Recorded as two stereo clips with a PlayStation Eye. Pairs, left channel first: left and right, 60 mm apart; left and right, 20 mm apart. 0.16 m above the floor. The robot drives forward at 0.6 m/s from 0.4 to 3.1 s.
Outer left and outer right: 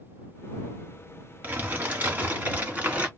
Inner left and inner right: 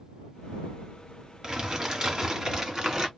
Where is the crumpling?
30° right (ahead or behind), 1.6 m; by 3.1 s 25° right (ahead or behind), 1.9 m.